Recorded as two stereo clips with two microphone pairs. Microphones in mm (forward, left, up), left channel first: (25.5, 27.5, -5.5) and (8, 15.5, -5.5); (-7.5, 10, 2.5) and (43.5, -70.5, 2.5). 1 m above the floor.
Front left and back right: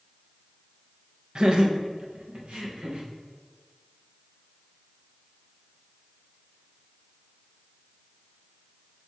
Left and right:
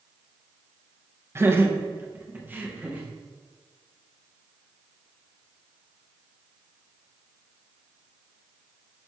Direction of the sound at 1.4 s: 110° right.